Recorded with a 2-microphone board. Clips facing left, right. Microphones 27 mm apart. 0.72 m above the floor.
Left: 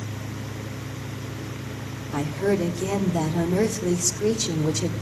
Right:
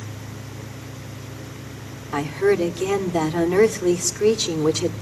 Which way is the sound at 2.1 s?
60° right (ahead or behind).